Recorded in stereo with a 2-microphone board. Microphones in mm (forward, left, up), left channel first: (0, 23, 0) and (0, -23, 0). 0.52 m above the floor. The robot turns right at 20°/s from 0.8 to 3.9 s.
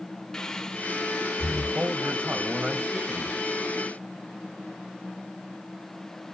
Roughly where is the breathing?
Centre.